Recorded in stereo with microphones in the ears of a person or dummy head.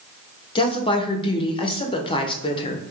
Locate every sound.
0.6 s a woman speaking: 30° left (ahead or behind), 0.6 m